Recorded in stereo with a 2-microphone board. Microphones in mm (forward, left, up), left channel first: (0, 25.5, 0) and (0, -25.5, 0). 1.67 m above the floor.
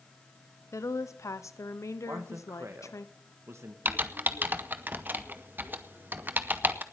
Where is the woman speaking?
75° left (ahead or behind), 0.9 m.